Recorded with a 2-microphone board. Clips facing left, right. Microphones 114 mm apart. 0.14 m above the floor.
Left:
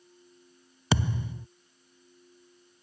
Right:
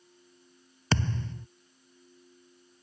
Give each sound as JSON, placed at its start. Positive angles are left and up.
{"t": 0.9, "sound": "a thud", "side_deg": 10}